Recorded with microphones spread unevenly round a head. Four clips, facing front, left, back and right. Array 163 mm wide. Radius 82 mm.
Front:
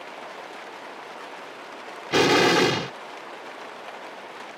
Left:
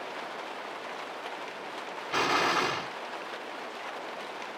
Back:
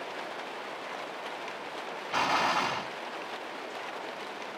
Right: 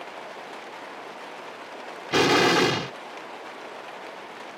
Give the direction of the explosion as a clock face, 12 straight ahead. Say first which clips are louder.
Right 7 dB, front 9 dB; 1 o'clock.